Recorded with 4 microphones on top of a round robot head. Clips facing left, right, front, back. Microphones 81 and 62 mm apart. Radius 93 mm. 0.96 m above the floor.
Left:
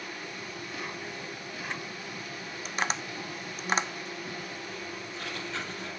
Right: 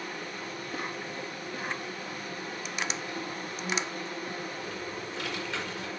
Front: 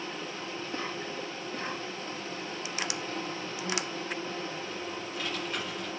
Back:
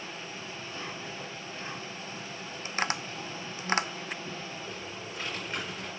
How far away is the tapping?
About 0.9 m.